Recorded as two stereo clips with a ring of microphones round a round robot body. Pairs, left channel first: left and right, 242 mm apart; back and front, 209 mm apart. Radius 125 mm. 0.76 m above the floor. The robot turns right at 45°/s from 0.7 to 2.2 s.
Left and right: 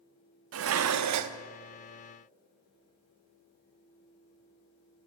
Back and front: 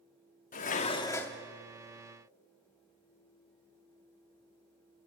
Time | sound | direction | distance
0.5 | dishes clattering | 120° right | 0.9 m